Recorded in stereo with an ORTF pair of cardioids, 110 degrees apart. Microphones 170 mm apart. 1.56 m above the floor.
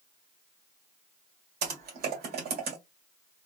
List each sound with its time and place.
1.6 s typing on a keyboard: 65° right, 1.6 m